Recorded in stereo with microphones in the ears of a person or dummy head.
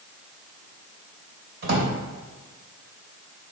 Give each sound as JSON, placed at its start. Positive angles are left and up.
{"t": 1.6, "sound": "a drawer", "side_deg": -55, "distance_m": 3.0}